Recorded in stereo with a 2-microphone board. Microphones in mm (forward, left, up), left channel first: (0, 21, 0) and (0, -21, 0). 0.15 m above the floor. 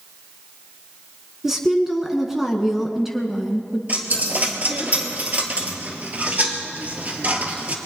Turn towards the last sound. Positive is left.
turn(degrees=-45)  # may be behind; listen again after turning